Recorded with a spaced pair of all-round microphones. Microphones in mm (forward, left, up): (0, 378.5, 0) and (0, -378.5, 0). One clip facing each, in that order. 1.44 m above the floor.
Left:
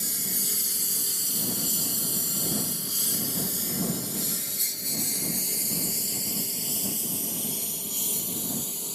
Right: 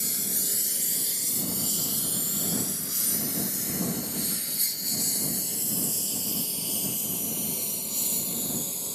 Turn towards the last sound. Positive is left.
turn(degrees=50)  # may be behind; listen again after turning